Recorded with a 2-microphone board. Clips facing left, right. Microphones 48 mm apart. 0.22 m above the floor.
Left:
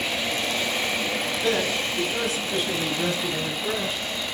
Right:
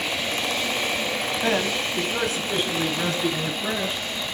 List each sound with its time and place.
1.4 s a man speaking: 40° right (ahead or behind), 1.3 m; by 4.0 s 55° right (ahead or behind), 4 m